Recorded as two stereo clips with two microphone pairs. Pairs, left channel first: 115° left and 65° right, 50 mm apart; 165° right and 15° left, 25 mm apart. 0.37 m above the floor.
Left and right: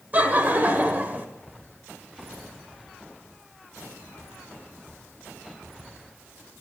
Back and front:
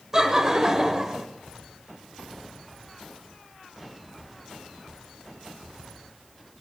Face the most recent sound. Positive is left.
turn(degrees=-40)